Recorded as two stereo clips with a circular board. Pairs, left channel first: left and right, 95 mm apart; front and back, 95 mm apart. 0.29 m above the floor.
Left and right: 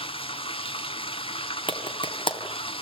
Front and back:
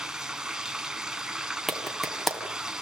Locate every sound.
0.0 s running water: 95° left, 0.9 m
1.7 s a clap: 90° left, 2 m